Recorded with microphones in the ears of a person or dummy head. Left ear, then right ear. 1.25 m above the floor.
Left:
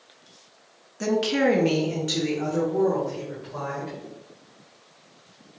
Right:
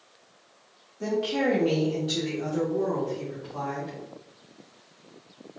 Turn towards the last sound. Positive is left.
turn(degrees=20)  # may be behind; listen again after turning